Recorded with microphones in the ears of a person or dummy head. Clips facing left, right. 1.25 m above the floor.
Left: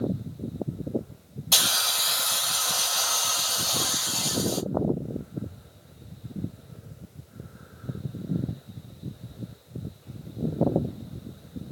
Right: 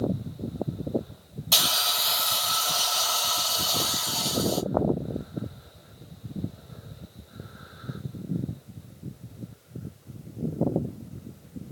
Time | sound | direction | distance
1.5 | a hiss | centre (ahead or behind) | 1.2 m